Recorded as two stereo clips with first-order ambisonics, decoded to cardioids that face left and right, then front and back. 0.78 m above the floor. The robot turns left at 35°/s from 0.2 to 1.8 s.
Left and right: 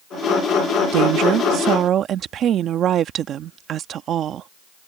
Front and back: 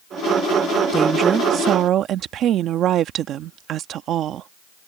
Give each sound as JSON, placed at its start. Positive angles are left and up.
{"t": 0.9, "sound": "a woman speaking", "azimuth_deg": -105}